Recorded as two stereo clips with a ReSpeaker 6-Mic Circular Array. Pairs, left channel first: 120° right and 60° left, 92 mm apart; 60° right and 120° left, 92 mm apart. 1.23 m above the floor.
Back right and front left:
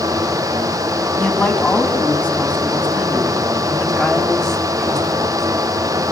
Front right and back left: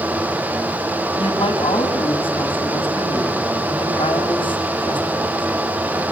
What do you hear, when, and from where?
1.2 s a man speaking: 50° right, 8 m; by 5.5 s 35° right, 6.5 m